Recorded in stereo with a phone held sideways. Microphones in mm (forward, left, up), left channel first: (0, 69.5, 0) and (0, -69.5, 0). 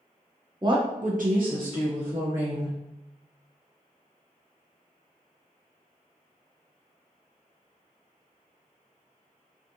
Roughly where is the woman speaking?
Right.